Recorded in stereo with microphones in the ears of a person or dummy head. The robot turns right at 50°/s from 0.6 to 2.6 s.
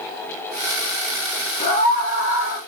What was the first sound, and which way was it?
A scream, 45° left.